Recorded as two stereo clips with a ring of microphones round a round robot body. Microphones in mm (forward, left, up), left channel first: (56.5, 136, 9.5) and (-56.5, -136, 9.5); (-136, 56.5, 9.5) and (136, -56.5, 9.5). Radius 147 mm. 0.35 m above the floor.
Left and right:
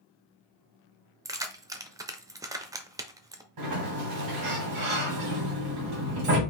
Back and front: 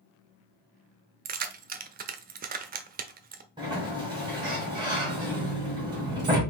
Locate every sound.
1.2 s keys jangling: 45° right, 0.5 m
3.6 s a sliding door: 95° right, 2.5 m